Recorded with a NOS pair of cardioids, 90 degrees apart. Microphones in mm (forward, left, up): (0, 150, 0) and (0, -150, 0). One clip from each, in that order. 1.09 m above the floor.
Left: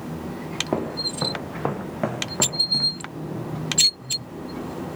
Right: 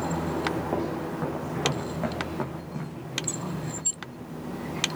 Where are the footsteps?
45° left, 4 m; by 3.0 s 55° left, 3 m.